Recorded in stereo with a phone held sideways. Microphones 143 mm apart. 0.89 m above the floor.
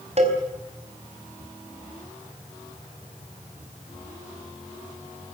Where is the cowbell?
50° right (ahead or behind), 4.5 m.